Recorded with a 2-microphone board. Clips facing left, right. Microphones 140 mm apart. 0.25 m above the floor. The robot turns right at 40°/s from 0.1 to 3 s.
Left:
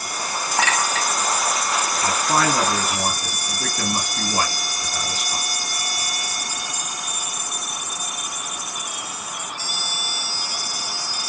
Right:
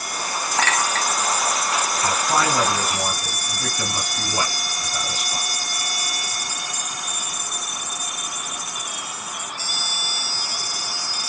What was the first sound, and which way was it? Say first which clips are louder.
A clink: even; 15° left (ahead or behind).